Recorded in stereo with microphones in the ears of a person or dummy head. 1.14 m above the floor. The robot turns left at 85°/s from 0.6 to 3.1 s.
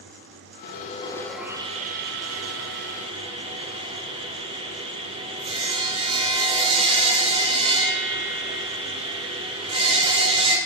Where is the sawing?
65° left, 0.8 m; by 10.6 s 145° right, 0.8 m.